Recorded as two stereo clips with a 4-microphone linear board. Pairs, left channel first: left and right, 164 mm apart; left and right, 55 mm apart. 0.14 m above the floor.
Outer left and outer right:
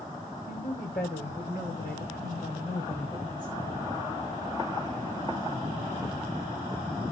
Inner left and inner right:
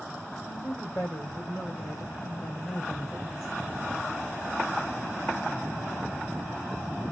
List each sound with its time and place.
0.5 s a woman speaking: 65° left (ahead or behind), 8.5 m; by 3.8 s 50° left (ahead or behind), 10 m